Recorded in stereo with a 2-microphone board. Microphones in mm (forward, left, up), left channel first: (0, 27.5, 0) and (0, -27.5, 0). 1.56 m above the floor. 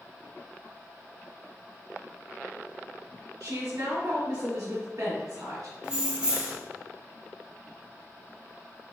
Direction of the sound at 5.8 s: 15° right (ahead or behind).